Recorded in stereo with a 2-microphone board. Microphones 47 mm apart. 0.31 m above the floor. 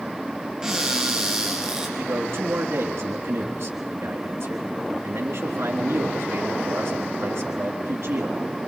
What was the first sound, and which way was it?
A cupboard door, 15° right (ahead or behind).